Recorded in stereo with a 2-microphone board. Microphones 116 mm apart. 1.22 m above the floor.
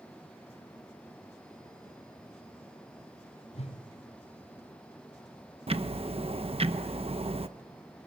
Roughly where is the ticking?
Right.